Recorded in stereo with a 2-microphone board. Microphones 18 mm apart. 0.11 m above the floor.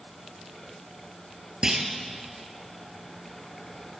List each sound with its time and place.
1.6 s a clunk: 40° right (ahead or behind), 1.5 m